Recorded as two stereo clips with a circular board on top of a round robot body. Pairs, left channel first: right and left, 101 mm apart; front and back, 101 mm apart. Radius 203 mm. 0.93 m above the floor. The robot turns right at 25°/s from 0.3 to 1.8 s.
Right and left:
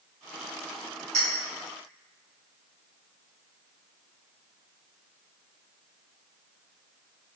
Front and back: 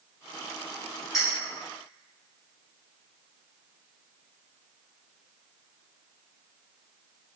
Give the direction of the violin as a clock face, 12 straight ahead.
No violin in this recording.